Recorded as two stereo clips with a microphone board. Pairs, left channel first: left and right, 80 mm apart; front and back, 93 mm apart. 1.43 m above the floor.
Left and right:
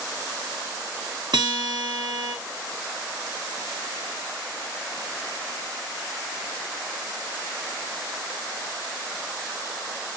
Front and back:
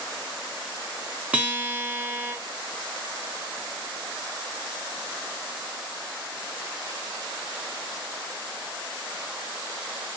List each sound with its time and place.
1.3 s a guitar: 110° right, 0.7 m